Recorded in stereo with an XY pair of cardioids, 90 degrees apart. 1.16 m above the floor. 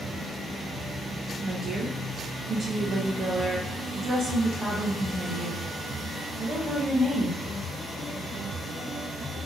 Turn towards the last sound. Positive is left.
turn(degrees=-40)